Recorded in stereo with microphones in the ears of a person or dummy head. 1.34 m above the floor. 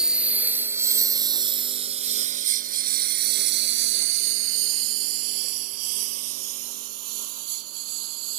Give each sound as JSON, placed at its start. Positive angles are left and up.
{"t": 0.0, "sound": "a lawn mower", "side_deg": -5}